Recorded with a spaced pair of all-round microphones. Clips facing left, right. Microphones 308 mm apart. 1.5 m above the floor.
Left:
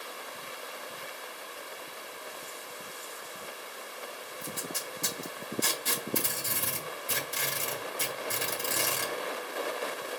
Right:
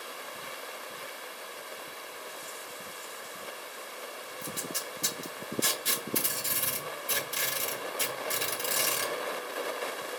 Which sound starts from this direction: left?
Tape being pulled, at 4.4 s.